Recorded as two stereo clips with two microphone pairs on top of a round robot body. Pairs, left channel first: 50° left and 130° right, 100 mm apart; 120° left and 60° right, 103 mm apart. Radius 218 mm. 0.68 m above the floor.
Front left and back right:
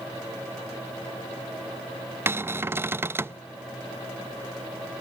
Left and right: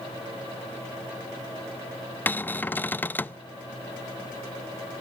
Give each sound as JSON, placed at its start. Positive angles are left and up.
{"t": 2.3, "sound": "a cupboard door", "azimuth_deg": -170, "distance_m": 0.6}